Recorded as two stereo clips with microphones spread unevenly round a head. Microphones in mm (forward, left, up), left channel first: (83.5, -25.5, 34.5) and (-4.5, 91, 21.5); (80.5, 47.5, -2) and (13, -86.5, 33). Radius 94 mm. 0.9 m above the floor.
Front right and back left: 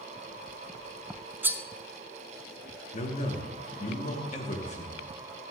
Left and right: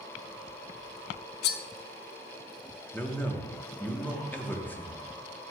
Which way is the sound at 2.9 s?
15° right.